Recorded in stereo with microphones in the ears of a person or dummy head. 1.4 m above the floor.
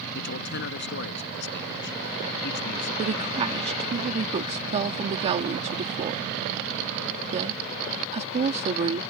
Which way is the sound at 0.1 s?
65° left (ahead or behind).